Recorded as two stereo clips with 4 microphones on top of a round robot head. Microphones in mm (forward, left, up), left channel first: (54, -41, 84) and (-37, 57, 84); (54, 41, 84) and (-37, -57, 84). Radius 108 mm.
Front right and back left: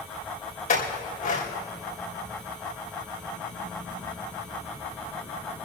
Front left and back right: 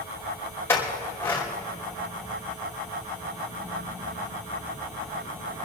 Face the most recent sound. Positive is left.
turn(degrees=-25)